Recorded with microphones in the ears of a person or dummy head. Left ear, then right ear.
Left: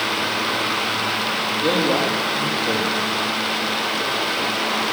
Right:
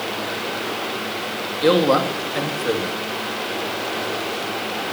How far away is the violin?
I don't hear a violin.